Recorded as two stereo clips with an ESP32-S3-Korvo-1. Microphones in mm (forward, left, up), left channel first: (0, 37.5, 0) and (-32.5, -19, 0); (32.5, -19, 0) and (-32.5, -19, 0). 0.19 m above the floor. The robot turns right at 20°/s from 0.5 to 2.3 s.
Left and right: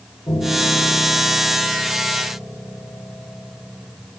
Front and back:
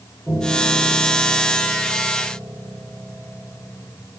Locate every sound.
0.3 s a piano: 90° left, 5 m; by 4.0 s 125° left, 5 m